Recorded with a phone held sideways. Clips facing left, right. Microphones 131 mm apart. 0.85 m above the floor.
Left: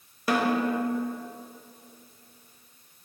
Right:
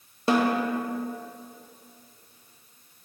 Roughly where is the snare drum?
Right.